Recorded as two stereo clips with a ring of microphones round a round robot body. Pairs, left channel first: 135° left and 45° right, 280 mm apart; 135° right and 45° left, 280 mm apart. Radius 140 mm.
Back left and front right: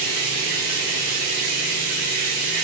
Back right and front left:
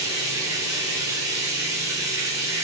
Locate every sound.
0.0 s running water: 35° right, 5 m